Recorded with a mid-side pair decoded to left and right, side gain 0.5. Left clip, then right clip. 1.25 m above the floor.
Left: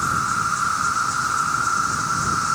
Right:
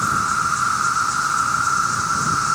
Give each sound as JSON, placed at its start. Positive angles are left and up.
{"t": 0.0, "sound": "an insect", "azimuth_deg": -10}